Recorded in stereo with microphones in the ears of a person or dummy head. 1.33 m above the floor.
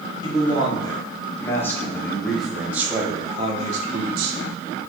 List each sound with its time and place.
0.2 s a man speaking: 25° left (ahead or behind), 2.5 m; by 4.4 s 65° right (ahead or behind), 1.2 m